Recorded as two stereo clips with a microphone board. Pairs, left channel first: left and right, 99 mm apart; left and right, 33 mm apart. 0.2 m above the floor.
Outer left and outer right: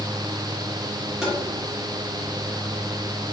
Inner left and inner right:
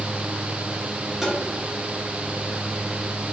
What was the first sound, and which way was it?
Tapping, 5° right (ahead or behind).